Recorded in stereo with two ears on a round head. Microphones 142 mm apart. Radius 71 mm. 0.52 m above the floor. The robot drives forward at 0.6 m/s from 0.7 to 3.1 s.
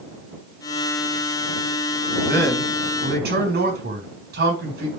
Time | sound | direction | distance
2.3 | a man speaking | 75° right (ahead or behind) | 6 m